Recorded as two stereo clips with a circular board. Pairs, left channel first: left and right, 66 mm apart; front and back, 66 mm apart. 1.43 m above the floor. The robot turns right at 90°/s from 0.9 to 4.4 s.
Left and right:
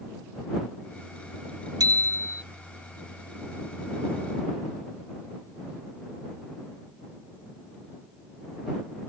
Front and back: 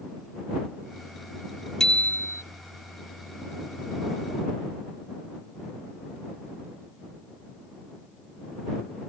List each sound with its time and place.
1.8 s a bicycle bell: 85° right; by 2.4 s 25° right